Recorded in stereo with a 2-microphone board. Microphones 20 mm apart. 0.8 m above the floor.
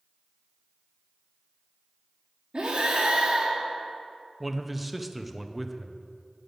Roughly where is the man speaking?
Centre.